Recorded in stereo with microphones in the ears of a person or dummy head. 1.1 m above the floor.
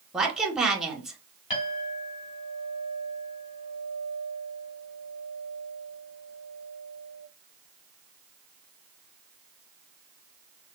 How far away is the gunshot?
I don't hear a gunshot.